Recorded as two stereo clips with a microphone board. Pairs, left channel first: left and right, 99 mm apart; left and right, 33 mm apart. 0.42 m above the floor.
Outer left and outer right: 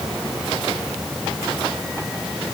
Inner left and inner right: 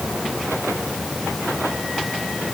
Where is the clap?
I don't hear a clap.